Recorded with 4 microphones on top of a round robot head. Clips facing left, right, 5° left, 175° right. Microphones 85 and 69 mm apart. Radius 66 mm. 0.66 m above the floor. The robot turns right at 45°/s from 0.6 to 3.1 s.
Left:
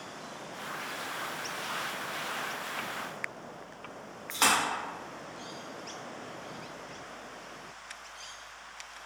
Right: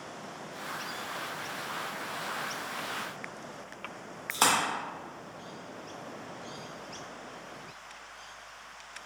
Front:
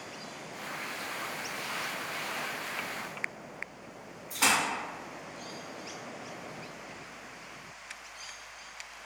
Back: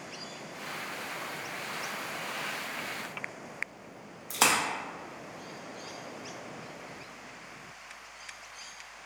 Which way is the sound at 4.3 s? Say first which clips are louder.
Right 1 dB, back 1 dB; 150° right.